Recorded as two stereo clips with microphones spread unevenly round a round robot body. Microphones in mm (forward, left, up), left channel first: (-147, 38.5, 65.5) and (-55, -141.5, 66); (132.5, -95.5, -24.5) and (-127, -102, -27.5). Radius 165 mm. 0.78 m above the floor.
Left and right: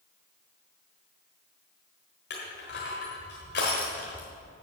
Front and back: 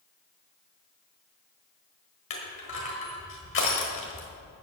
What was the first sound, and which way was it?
Crushing, 55° left.